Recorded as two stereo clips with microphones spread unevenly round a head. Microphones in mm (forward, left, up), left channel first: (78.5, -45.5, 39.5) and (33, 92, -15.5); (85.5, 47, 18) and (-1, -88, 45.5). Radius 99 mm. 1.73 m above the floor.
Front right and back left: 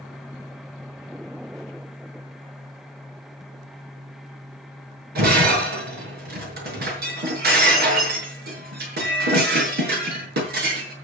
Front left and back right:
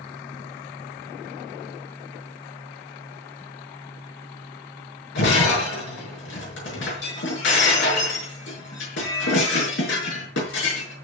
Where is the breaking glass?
90° left, 6.5 m.